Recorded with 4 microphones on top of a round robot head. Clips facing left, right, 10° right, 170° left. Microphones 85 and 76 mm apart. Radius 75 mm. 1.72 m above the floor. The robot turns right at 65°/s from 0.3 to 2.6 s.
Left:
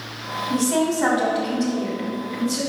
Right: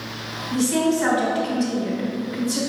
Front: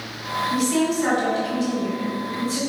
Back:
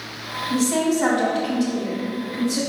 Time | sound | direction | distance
0.5 | a woman speaking | 110° left | 2.5 m